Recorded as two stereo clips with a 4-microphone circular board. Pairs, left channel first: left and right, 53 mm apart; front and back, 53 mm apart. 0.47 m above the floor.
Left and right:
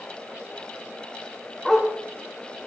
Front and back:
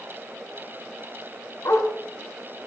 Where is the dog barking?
Straight ahead, 2 m; by 2.7 s 25° left, 2.5 m.